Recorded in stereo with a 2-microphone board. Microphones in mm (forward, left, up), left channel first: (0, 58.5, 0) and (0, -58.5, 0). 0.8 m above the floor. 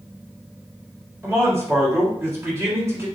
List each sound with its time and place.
1.2 s a man speaking: 20° right (ahead or behind), 1.5 m